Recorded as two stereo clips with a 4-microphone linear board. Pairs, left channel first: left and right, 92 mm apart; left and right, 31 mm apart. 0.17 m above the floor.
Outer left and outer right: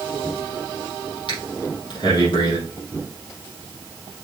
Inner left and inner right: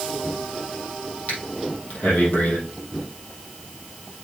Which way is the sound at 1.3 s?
55° left (ahead or behind).